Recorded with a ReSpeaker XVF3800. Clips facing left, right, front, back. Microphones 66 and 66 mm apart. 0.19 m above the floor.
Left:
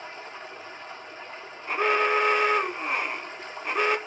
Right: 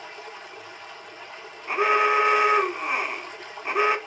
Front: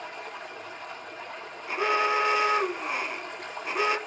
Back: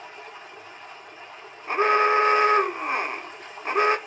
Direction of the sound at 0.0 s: 30° left.